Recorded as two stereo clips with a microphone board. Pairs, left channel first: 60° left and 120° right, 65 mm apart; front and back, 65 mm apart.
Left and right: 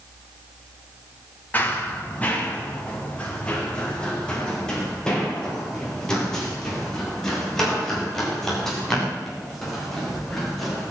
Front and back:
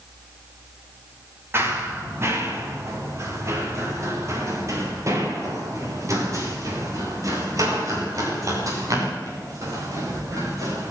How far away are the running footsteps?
About 4.5 m.